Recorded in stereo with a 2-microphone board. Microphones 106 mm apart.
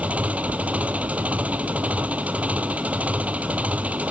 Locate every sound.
0.0 s an engine running: 10° right (ahead or behind)